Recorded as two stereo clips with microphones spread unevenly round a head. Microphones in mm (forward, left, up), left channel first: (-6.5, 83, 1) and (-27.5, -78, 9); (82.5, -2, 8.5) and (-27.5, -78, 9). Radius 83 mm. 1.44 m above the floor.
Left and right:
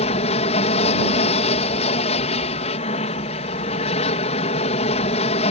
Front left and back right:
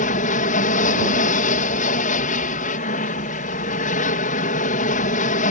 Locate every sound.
0.0 s an aircraft: 35° left